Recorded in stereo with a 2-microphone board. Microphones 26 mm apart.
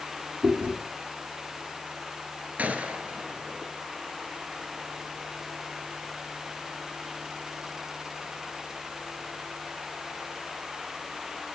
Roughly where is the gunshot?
Right.